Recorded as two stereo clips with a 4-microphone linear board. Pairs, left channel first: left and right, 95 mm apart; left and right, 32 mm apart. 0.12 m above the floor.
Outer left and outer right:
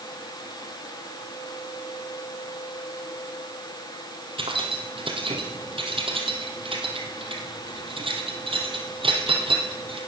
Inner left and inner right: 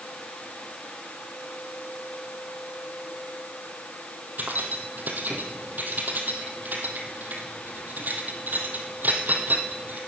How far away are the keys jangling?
About 2.5 m.